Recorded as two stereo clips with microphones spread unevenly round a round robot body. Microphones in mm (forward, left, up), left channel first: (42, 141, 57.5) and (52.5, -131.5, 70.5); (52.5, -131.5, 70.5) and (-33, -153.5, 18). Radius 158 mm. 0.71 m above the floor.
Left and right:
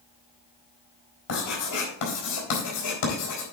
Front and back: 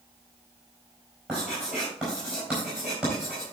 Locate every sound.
1.3 s writing: 115° left, 3.5 m